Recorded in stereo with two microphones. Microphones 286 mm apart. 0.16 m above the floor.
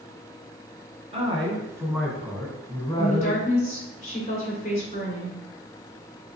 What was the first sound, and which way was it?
A man speaking, 20° right (ahead or behind).